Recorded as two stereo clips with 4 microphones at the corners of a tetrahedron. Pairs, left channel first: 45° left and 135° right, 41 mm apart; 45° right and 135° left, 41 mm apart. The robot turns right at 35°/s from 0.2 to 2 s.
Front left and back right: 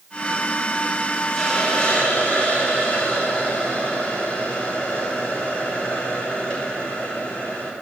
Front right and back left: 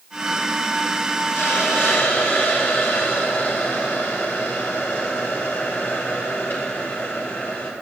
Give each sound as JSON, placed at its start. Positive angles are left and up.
{"t": 1.3, "sound": "a hiss", "azimuth_deg": -35, "distance_m": 3.5}